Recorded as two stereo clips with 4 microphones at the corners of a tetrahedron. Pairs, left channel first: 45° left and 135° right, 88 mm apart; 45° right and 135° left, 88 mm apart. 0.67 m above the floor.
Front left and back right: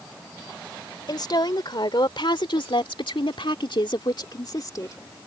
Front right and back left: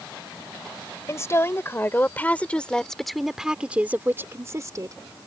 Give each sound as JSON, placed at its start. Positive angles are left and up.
{"t": 1.1, "sound": "a woman speaking", "azimuth_deg": 10}